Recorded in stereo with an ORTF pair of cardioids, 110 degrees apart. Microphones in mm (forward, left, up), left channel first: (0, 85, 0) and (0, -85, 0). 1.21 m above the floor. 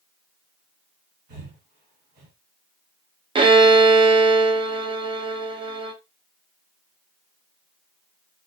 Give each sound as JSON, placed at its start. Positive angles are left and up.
{"t": 1.3, "sound": "breathing", "azimuth_deg": -65, "distance_m": 1.6}
{"t": 3.4, "sound": "a violin", "azimuth_deg": -30, "distance_m": 0.6}